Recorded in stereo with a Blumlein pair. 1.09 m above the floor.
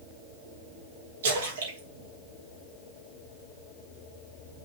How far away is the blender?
No blender in this recording.